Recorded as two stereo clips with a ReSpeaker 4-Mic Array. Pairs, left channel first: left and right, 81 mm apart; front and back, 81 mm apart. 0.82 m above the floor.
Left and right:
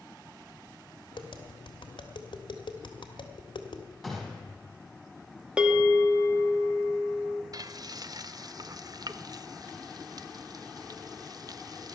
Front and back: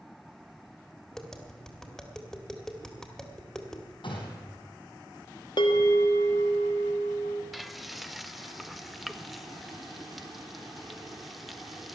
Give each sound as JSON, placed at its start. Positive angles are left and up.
{"t": 1.1, "sound": "tapping", "azimuth_deg": 85, "distance_m": 1.8}
{"t": 4.0, "sound": "a gunshot", "azimuth_deg": 0, "distance_m": 4.5}
{"t": 5.6, "sound": "a bell", "azimuth_deg": -10, "distance_m": 1.6}
{"t": 7.5, "sound": "frying", "azimuth_deg": -90, "distance_m": 0.6}